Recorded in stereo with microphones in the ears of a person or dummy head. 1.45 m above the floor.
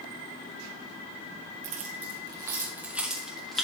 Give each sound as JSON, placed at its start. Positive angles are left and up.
{"t": 1.6, "sound": "keys jangling", "side_deg": -40, "distance_m": 0.9}